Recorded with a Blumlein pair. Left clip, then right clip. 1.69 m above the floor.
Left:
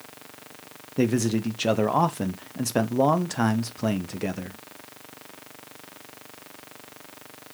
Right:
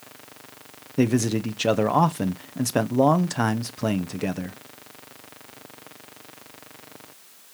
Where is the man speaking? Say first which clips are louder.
Right 1 dB; 5° right, 0.8 m.